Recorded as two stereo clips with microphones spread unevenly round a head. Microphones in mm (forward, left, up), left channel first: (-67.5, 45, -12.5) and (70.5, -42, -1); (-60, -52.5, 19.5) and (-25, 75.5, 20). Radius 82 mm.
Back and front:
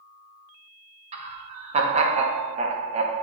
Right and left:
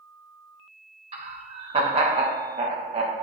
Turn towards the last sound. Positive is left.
turn(degrees=15)